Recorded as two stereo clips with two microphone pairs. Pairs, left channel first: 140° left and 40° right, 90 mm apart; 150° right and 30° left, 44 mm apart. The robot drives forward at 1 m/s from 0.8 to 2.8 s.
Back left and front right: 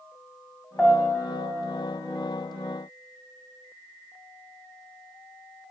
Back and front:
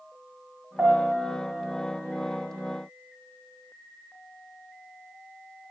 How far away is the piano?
About 1.5 m.